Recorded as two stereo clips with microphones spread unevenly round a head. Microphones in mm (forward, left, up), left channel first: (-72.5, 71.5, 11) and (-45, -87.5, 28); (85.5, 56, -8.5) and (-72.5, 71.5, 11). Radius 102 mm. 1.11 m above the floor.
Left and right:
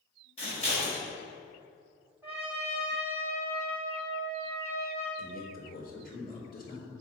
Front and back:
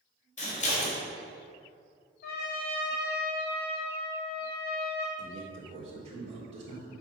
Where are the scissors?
35° left, 3.5 m.